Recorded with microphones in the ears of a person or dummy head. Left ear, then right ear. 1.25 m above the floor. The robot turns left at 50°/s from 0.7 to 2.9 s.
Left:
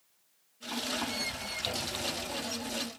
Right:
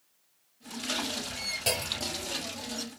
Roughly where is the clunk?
Right.